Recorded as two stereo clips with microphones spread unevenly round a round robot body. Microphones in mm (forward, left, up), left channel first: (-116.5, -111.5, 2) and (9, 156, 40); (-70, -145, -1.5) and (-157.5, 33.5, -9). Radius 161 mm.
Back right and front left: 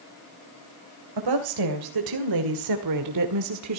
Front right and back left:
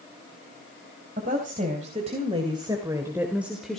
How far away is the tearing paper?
No tearing paper in this recording.